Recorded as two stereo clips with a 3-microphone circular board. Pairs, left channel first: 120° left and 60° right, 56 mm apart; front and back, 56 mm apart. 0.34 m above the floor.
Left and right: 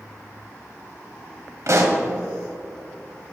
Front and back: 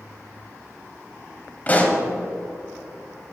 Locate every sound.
1.7 s a pop: 55° right, 1.3 m